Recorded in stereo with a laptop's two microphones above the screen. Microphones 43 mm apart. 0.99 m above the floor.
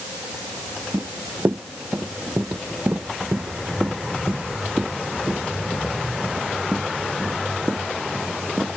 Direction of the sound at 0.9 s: 60° right (ahead or behind).